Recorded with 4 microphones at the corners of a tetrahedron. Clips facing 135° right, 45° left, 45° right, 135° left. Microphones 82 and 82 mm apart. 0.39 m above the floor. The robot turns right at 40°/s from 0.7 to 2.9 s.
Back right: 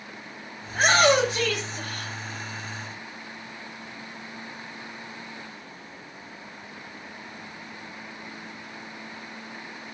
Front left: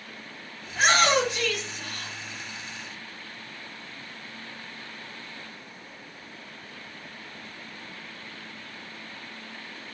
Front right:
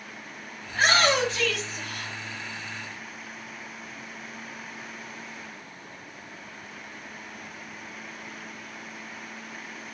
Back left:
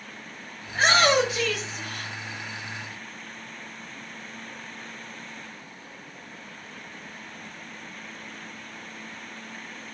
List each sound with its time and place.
0.7 s a shout: 175° right, 1.7 m; by 2.1 s 115° right, 1.7 m